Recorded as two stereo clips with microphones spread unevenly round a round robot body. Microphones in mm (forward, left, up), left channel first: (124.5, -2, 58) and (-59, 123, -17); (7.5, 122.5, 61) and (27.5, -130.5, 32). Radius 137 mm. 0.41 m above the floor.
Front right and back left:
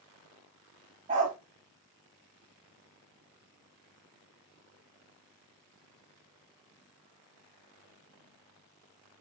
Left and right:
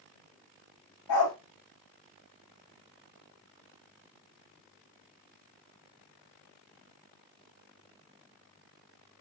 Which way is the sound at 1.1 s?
90° left.